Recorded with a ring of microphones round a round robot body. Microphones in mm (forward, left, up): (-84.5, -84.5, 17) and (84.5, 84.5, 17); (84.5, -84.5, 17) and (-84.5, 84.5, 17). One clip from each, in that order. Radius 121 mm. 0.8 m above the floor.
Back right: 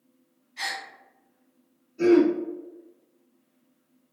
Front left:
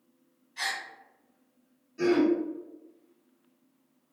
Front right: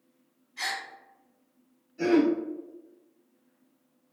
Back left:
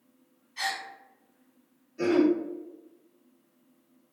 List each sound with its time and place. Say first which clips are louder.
0.6 s a gasp: back right 1 dB, back left 1 dB; 105° left, 1.5 m
2.0 s throat clearing: back right 5 dB, even; 60° left, 1.7 m